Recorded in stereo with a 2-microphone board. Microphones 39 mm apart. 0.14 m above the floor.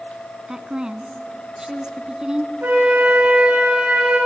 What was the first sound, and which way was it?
A woman speaking, 20° right (ahead or behind).